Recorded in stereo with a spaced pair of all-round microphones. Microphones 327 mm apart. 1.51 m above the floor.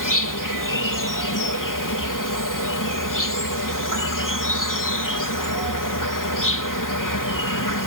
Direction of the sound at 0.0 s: 70° left (ahead or behind).